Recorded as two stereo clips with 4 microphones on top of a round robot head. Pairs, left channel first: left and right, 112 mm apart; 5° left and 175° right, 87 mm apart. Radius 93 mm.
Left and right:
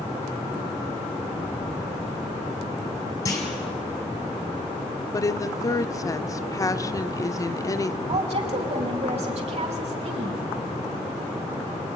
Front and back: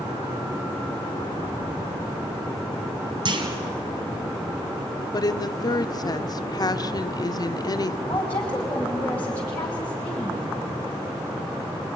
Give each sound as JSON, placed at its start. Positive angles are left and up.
{"t": 3.2, "sound": "a clunk", "azimuth_deg": 155, "distance_m": 3.5}
{"t": 5.1, "sound": "a woman speaking", "azimuth_deg": 35, "distance_m": 1.3}
{"t": 8.1, "sound": "a woman speaking", "azimuth_deg": -70, "distance_m": 4.0}